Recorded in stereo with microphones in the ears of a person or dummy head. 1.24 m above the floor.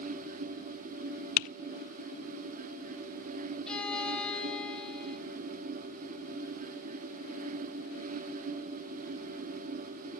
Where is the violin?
10° left (ahead or behind), 4 m.